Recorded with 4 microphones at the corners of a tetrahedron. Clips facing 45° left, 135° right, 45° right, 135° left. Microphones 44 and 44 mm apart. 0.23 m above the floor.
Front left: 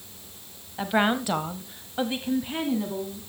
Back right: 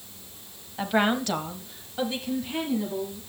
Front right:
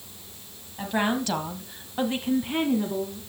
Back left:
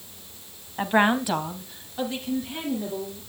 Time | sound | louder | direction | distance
0.8 | a woman speaking | even, back left 5 dB | 130° left | 1.2 m